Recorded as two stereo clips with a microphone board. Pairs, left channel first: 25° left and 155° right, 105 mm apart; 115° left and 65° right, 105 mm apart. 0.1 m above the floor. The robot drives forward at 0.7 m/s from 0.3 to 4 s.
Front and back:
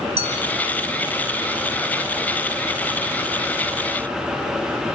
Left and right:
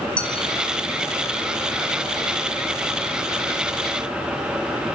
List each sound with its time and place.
0.2 s a clink: 165° right, 3 m; by 0.4 s 170° right, 3.5 m